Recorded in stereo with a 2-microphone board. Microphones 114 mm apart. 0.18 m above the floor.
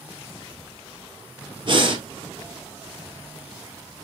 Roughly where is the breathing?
Right.